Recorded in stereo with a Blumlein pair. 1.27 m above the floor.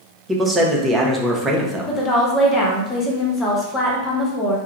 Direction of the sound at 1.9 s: 20° left.